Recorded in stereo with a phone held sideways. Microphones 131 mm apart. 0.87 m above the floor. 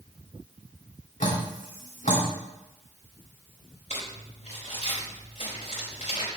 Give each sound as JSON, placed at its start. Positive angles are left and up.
{"t": 1.2, "sound": "dripping", "side_deg": 75, "distance_m": 2.5}
{"t": 3.9, "sound": "crumpling", "side_deg": 65, "distance_m": 4.5}